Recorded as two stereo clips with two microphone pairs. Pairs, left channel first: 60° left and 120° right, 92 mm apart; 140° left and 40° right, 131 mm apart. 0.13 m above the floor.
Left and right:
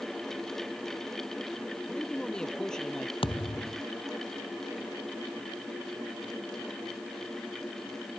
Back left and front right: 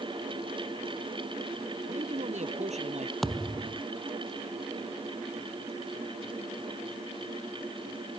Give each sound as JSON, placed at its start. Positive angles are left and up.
{"t": 1.9, "sound": "a man speaking", "azimuth_deg": -20}
{"t": 3.2, "sound": "a thud", "azimuth_deg": 50}